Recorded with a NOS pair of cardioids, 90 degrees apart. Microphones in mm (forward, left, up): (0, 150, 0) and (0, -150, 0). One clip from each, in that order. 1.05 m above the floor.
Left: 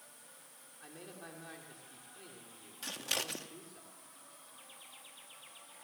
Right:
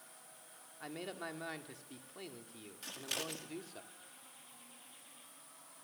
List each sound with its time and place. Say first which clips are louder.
0.8 s a man speaking: right 7 dB; 60° right, 2.5 m
2.8 s scissors: left 4 dB; 25° left, 1.8 m